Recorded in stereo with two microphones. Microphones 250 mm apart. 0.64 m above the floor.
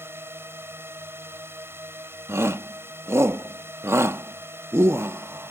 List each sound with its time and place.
0.0 s a drone: 10° right (ahead or behind)
2.3 s a shout: 10° right (ahead or behind)